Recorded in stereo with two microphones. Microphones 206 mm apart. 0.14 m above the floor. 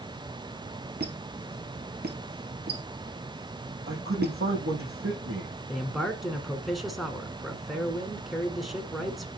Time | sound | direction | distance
1.0 | a squeak | 50° right (ahead or behind) | 1.4 m
3.9 | a man speaking | 80° right | 7 m
5.7 | a man speaking | centre (ahead or behind) | 1.6 m